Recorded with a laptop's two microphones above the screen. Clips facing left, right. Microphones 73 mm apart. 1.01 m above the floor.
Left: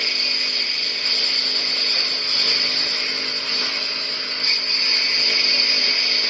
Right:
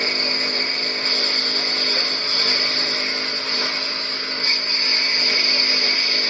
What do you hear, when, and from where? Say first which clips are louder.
0.0 s a lawn mower: right 4 dB; 30° right (ahead or behind); by 6.3 s 25° right (ahead or behind)